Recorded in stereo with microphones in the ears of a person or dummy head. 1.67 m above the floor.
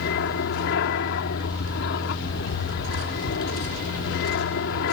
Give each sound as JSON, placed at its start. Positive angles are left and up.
{"t": 0.0, "sound": "an aircraft", "side_deg": 60}